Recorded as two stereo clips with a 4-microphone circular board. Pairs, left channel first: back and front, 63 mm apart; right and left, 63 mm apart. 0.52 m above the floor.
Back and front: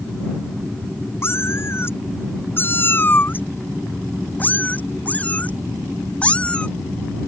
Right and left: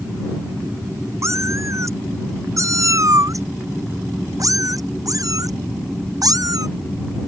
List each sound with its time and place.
1.2 s a cat meowing: 130° left; by 6.7 s 110° left